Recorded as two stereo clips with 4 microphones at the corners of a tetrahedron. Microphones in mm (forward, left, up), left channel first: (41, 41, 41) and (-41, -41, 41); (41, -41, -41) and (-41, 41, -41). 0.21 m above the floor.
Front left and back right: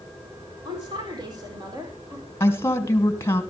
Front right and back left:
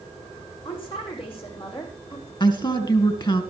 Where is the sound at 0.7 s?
85° right, 9 m; by 2.3 s 75° right, 7.5 m.